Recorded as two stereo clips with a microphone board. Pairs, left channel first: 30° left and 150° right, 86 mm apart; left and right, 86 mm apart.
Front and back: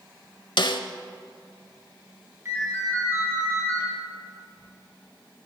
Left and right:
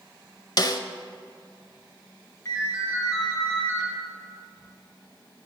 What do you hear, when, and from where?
0.6 s a snare drum: 50° left, 0.6 m
2.5 s a ringtone: 150° left, 3 m